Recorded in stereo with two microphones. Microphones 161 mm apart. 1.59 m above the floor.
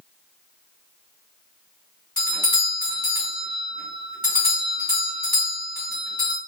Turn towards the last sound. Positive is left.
turn(degrees=55)  # may be behind; listen again after turning